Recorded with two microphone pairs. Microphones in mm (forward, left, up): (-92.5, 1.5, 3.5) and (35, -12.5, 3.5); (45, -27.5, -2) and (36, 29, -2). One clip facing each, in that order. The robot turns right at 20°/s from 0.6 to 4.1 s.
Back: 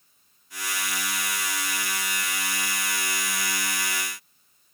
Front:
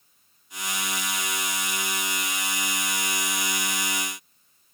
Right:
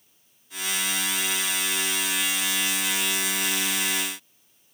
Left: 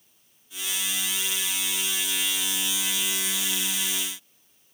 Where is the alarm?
No alarm in this recording.